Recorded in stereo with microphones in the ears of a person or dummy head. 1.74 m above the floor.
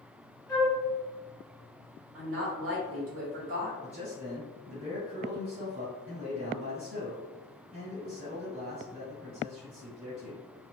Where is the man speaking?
40° right (ahead or behind), 1.7 m.